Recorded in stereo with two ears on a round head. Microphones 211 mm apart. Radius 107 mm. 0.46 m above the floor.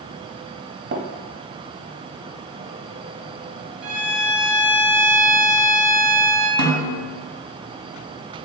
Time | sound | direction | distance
0.9 | tapping | 45° right (ahead or behind) | 0.5 m
3.8 | a violin | 45° right (ahead or behind) | 0.9 m
6.6 | a snare drum | 75° right (ahead or behind) | 0.8 m